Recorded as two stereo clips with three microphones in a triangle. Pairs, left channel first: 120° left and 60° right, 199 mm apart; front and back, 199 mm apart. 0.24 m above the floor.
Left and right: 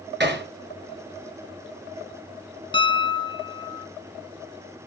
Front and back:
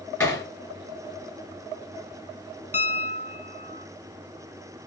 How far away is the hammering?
About 3.5 m.